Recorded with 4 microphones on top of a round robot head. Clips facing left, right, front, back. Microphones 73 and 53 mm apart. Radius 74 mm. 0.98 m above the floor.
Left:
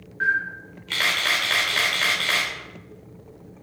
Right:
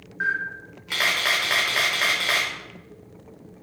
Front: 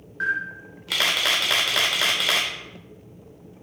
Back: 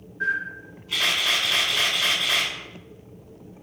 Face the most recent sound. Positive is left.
turn(degrees=-10)